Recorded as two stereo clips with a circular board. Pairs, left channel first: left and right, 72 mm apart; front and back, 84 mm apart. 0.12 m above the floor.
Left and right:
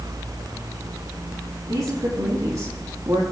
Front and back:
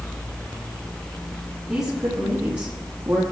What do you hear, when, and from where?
1.7 s a woman speaking: 100° right, 5 m; by 3.2 s 115° right, 4 m